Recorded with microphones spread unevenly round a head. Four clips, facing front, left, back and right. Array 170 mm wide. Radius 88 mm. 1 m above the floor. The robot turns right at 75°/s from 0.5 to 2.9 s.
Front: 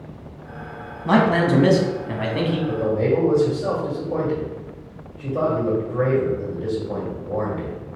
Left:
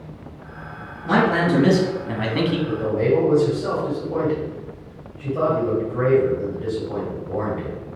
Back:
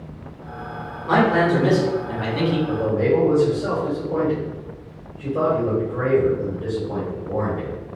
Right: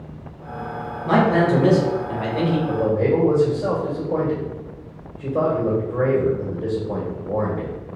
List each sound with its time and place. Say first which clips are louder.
1.1 s a man speaking: right 1 dB, even; 10° right, 1.0 m; by 2.6 s 105° left, 1.0 m
2.7 s a man speaking: right 1 dB, back 1 dB; 110° right, 1.8 m; by 7.8 s 95° right, 1.8 m